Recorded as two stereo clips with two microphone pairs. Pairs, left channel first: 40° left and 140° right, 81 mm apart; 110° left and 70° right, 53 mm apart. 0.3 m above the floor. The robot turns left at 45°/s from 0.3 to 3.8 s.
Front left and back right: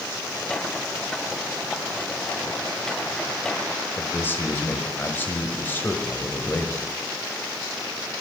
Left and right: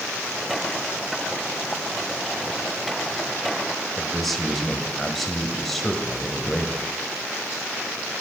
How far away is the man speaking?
About 1.4 m.